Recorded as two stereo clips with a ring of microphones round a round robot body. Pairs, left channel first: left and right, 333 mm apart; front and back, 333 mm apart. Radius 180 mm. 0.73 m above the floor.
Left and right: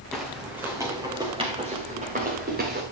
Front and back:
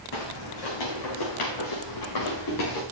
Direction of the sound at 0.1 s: Straight ahead.